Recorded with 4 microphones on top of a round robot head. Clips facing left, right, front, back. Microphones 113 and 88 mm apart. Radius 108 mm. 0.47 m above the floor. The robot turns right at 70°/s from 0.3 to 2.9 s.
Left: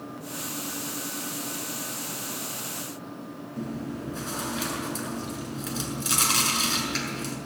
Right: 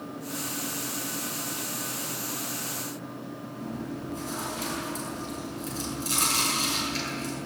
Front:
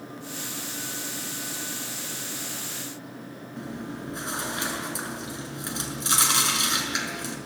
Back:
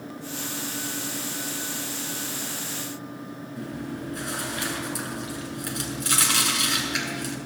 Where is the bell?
I don't hear a bell.